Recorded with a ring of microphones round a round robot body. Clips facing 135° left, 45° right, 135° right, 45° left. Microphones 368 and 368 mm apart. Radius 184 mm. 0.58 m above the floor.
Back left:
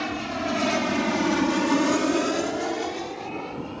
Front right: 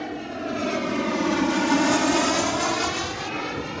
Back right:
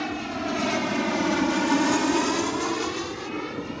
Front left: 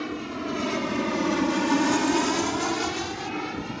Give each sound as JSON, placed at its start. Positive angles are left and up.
{"t": 0.0, "sound": "an aircraft", "azimuth_deg": 160}